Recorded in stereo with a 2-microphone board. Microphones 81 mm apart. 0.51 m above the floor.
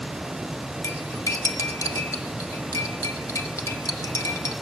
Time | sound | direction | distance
0.8 | cutlery clinking | 45° left (ahead or behind) | 0.9 m